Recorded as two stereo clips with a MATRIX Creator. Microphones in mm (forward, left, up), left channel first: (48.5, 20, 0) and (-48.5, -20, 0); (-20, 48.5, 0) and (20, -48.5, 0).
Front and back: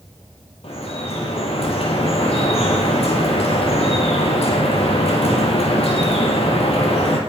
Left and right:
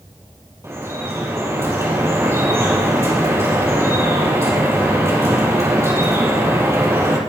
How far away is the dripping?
About 4 m.